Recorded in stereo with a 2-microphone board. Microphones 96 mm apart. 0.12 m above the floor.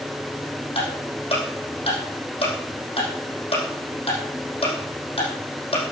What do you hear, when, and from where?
0.8 s ticking: 70° left (ahead or behind), 5.5 m